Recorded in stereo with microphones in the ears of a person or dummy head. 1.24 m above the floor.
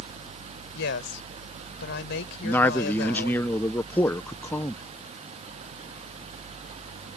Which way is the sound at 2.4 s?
15° left (ahead or behind).